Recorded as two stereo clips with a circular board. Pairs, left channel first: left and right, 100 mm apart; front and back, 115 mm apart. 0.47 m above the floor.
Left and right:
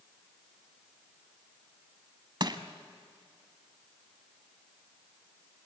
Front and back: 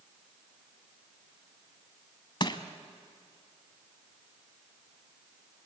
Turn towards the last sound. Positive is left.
turn(degrees=-45)